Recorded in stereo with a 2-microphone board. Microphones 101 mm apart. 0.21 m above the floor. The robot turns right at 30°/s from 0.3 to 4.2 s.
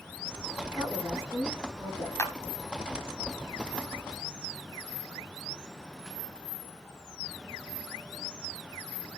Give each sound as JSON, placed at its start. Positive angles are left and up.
{"t": 0.8, "sound": "a woman speaking", "azimuth_deg": 15, "distance_m": 9.5}
{"t": 2.2, "sound": "a clap", "side_deg": 25, "distance_m": 1.1}